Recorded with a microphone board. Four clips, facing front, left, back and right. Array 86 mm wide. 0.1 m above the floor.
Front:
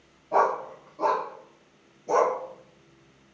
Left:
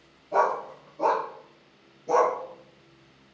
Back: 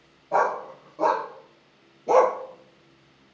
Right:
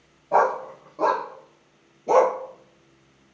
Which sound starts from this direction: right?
A dog barking, at 0.3 s.